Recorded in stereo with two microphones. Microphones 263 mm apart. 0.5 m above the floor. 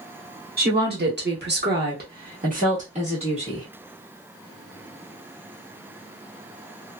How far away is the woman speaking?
About 1.1 m.